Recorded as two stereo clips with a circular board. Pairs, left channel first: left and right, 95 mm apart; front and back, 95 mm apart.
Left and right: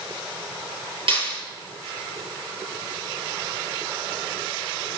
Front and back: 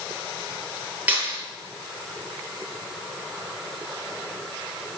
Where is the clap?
110° right, 9 m.